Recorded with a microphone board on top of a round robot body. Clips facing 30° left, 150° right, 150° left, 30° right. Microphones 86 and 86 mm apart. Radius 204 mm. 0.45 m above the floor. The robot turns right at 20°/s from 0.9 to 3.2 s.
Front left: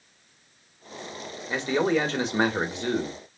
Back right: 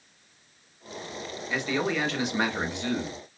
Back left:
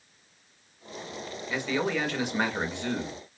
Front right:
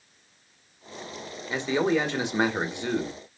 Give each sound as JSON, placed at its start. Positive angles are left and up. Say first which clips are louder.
{"t": 1.5, "sound": "a man speaking", "louder": "front left 4 dB, front right 5 dB", "azimuth_deg": 0, "distance_m": 1.4}